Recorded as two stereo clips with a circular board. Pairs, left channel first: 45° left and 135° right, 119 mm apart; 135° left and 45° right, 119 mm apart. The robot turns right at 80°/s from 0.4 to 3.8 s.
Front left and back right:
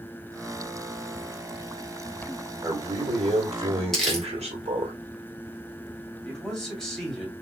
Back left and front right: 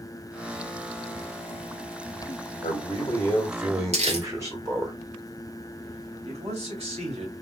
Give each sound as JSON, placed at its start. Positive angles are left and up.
{"t": 2.6, "sound": "a man speaking", "azimuth_deg": 155, "distance_m": 2.0}
{"t": 3.9, "sound": "crumpling", "azimuth_deg": -40, "distance_m": 1.7}
{"t": 6.2, "sound": "a man speaking", "azimuth_deg": -40, "distance_m": 2.5}